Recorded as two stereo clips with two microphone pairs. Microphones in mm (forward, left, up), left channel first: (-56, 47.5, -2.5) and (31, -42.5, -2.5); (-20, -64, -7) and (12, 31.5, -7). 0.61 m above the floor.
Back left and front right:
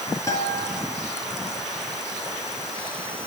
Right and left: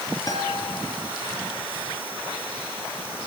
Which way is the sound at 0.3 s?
160° right.